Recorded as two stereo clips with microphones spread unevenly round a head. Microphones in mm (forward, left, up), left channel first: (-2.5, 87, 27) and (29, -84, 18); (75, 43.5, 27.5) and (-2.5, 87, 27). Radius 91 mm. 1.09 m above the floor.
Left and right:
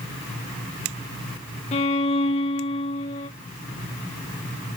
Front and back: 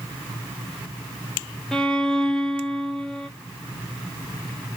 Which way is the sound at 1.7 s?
50° left.